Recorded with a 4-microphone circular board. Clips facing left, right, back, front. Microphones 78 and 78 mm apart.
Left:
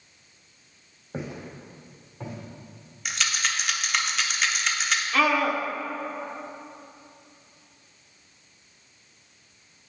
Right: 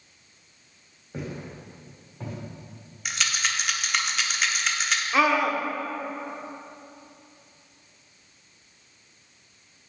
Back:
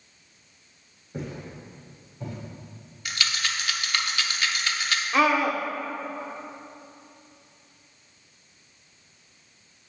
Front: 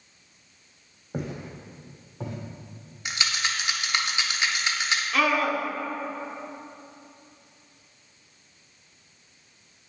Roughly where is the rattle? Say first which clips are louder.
Even, front 1 dB; ahead.